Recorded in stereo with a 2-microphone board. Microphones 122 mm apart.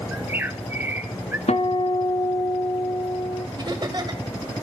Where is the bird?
15° right (ahead or behind), 0.7 m.